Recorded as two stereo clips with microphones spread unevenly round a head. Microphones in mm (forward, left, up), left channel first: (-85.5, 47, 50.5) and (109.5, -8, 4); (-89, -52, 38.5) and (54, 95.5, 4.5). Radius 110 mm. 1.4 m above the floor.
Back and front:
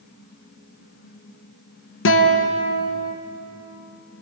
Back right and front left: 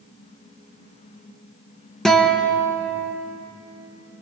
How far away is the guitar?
About 1.8 m.